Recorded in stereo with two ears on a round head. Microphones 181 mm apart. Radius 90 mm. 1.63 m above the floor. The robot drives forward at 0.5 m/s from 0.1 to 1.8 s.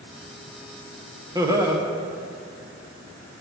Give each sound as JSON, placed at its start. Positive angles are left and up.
{"t": 1.4, "sound": "laughter", "side_deg": -15, "distance_m": 0.9}